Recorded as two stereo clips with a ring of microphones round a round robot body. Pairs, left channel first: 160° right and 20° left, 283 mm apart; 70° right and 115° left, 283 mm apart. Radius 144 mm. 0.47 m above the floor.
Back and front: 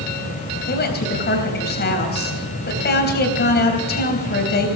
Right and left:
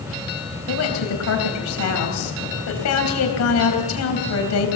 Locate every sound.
0.7 s a woman speaking: 100° right, 3.5 m